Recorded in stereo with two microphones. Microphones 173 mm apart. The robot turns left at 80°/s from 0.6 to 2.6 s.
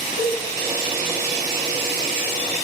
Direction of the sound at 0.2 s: 45° left (ahead or behind).